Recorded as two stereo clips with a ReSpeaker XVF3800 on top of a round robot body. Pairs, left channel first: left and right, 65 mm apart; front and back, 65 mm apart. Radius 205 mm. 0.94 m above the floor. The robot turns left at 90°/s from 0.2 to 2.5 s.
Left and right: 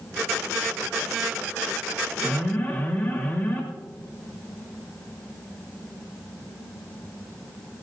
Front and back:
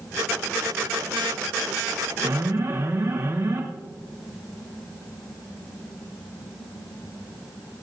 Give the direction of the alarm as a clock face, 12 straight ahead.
6 o'clock.